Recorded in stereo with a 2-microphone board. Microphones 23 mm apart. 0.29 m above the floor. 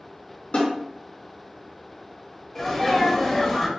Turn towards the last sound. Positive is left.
turn(degrees=15)  # may be behind; listen again after turning